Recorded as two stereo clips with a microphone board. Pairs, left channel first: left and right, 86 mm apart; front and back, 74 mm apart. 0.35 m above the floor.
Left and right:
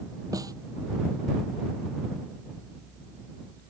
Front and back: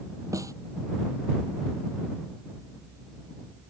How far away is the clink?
No clink in this recording.